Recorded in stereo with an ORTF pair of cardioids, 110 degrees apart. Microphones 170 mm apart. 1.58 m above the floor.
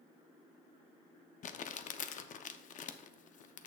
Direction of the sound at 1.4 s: 50° left.